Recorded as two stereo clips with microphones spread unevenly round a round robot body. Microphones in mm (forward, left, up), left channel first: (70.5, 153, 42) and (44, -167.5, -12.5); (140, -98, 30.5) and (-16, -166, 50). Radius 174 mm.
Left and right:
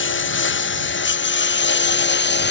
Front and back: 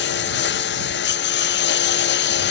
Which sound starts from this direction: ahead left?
A lawn mower, at 0.0 s.